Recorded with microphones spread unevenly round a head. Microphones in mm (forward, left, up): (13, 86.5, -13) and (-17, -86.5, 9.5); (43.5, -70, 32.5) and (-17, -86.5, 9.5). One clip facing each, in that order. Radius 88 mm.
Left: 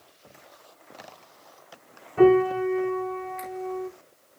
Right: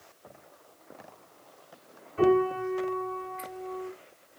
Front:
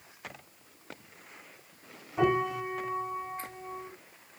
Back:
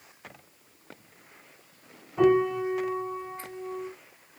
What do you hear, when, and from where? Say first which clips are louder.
2.2 s a piano: left 6 dB, back 6 dB; 90° left, 2 m